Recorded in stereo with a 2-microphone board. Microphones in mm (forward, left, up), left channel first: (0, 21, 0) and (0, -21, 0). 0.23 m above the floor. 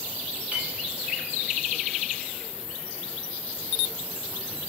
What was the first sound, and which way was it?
A clink, 30° right (ahead or behind).